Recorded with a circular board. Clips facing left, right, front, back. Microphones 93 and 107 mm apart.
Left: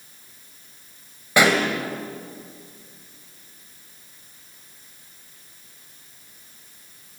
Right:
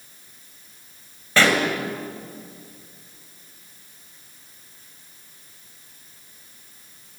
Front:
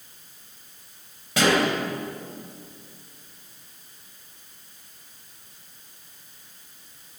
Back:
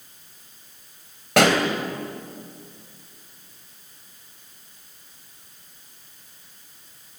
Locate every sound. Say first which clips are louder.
1.4 s a pop: left 1 dB, back 3 dB; 165° left, 3 m